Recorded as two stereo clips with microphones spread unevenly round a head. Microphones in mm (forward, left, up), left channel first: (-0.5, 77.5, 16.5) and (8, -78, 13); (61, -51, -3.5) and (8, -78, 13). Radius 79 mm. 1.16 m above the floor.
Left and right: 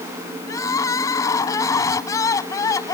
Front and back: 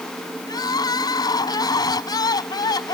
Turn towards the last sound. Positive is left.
turn(degrees=20)